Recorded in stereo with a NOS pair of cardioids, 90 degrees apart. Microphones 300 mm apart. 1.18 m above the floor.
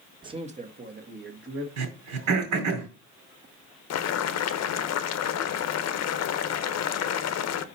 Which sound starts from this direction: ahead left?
Boiling, at 3.9 s.